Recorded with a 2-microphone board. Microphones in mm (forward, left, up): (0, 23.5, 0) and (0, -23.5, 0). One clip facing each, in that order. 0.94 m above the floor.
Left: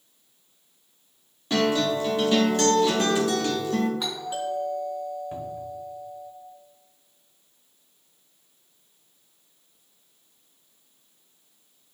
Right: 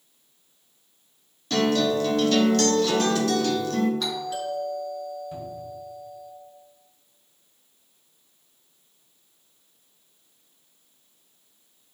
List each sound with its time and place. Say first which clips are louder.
1.5 s a guitar: right 1 dB; 20° left (ahead or behind), 1.3 m
4.0 s a doorbell: right 1 dB; 20° left (ahead or behind), 2.5 m
5.3 s a cupboard door: left 2 dB; 35° left (ahead or behind), 1.3 m